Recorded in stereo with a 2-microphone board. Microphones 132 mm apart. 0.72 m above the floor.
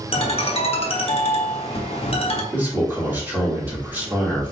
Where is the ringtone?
50° left (ahead or behind), 0.8 m.